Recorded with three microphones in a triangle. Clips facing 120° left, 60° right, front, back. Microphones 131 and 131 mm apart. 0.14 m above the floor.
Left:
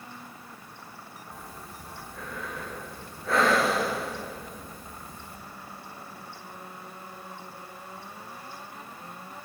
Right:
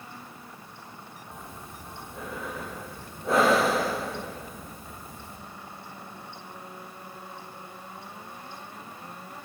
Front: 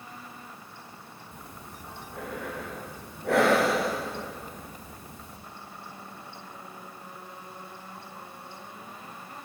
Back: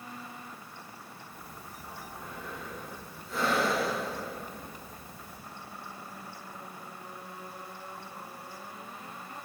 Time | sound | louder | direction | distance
1.3 | breathing | right 1 dB, front 2 dB | 10° left | 5.5 m